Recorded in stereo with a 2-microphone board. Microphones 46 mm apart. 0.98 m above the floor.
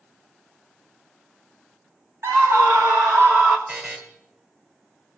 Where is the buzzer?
35° right (ahead or behind), 1.8 m.